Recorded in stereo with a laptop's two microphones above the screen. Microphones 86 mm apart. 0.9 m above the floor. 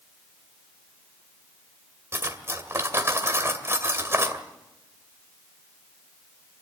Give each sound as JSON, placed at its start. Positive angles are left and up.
{"t": 2.1, "sound": "cutlery clinking", "side_deg": -30, "distance_m": 2.0}